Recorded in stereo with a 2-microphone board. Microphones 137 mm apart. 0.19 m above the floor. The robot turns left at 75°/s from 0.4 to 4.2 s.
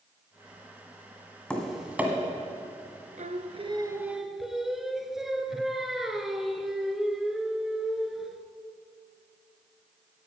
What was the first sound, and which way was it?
Tapping, 10° left (ahead or behind).